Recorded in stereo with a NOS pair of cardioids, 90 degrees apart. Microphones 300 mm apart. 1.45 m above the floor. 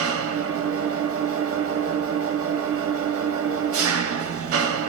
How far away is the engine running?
About 0.7 m.